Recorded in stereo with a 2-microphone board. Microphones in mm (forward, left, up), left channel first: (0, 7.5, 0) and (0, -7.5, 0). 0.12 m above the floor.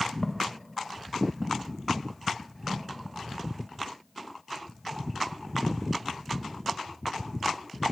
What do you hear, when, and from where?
0.2 s footsteps: 60° left (ahead or behind), 0.8 m; by 3.7 s 20° right (ahead or behind), 2.5 m